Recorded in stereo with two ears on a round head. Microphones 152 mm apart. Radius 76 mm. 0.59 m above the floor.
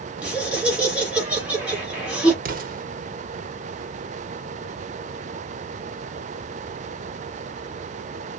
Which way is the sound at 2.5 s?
55° right (ahead or behind).